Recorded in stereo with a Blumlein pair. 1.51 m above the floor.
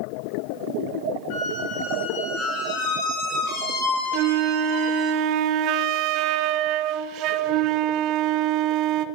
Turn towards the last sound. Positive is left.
turn(degrees=-40)